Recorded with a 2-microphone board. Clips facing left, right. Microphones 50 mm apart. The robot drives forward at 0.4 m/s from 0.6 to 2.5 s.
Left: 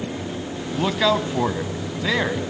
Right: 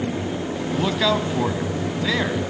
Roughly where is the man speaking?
Centre.